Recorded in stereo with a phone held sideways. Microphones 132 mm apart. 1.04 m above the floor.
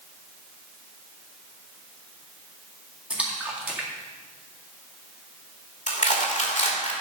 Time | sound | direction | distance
3.1 | a splash | 10° right (ahead or behind) | 1.9 m
5.9 | crushing | 70° left (ahead or behind) | 2.5 m